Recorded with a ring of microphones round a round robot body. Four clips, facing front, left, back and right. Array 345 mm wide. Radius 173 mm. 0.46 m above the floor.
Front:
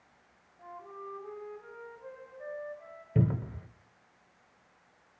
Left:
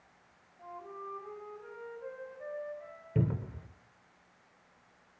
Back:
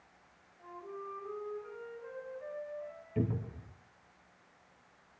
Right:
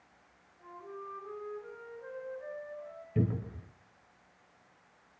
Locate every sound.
0.6 s a flute: 55° left, 9 m
3.1 s a cupboard door: 30° left, 1.3 m